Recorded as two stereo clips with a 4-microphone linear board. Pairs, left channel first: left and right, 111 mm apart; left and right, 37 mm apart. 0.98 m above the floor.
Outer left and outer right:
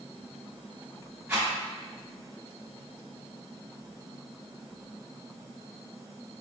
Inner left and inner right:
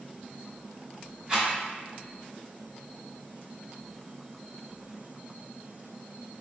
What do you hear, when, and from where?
1.3 s a rattle: 20° right (ahead or behind), 1.5 m